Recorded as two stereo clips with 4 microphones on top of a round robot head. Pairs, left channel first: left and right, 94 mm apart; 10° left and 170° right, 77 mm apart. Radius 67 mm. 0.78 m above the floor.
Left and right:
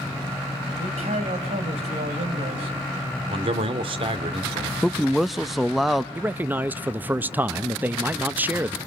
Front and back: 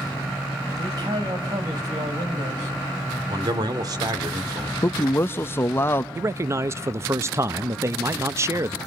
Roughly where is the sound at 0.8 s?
Behind right.